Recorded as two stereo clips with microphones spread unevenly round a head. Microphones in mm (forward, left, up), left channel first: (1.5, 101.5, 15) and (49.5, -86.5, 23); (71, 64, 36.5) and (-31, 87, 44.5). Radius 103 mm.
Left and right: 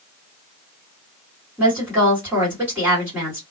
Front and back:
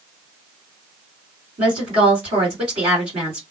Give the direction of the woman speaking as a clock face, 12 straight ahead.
5 o'clock.